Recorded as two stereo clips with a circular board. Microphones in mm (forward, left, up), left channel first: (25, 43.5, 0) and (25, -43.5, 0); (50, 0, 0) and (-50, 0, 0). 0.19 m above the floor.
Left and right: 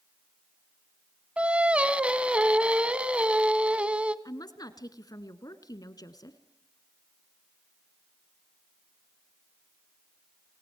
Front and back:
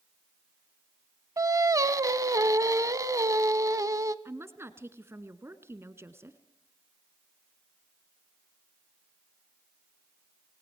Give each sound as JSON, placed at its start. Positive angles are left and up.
{"t": 1.4, "sound": "singing", "azimuth_deg": -155, "distance_m": 0.9}
{"t": 4.2, "sound": "a woman speaking", "azimuth_deg": 120, "distance_m": 1.7}